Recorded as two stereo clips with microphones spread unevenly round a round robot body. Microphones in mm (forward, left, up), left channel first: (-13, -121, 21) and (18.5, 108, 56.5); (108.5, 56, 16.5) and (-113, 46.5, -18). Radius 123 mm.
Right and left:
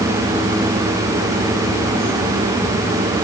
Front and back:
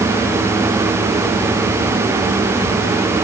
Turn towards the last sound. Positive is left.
No sound to turn to.